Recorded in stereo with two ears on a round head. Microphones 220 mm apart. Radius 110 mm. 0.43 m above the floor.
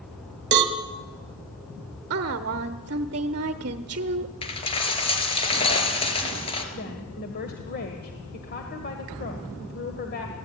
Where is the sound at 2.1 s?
45° right (ahead or behind), 1.0 m.